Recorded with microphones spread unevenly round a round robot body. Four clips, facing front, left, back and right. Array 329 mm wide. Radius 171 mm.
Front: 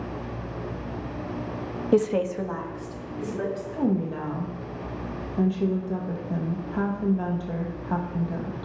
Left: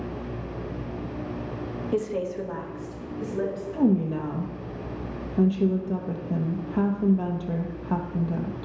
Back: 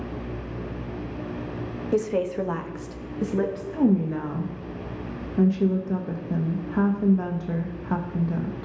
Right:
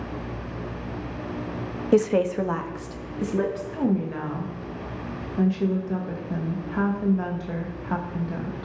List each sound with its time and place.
1.9 s a woman speaking: 50° right, 0.9 m; by 3.6 s 135° right, 1.7 m
3.7 s a woman speaking: 135° left, 0.9 m